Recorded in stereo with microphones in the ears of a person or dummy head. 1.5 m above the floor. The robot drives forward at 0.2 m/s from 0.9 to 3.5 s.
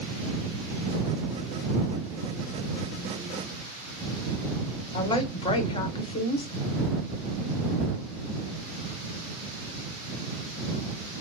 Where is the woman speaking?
25° left (ahead or behind), 0.9 m.